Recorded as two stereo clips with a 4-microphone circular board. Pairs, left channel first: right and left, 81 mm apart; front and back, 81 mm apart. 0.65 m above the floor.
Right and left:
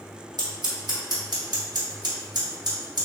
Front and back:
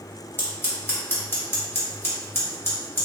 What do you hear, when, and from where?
0.4 s scissors: 60° left, 1.0 m